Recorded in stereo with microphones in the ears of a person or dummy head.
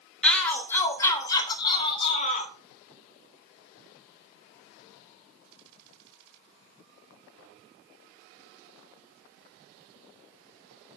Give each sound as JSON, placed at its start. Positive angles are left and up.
{"t": 0.2, "sound": "a shout", "side_deg": 5, "distance_m": 3.5}